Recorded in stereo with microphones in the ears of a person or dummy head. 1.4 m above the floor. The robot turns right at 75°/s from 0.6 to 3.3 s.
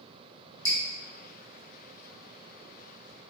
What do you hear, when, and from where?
0.7 s dripping: 20° left (ahead or behind), 1.0 m; by 0.8 s 10° left (ahead or behind), 1.0 m